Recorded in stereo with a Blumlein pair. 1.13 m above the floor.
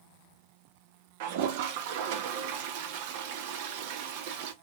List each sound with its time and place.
1.2 s a toilet flushing: 50° right, 0.7 m